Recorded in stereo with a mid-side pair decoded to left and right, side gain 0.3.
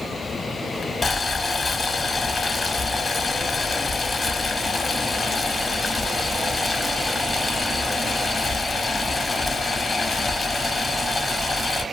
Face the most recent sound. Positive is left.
turn(degrees=40)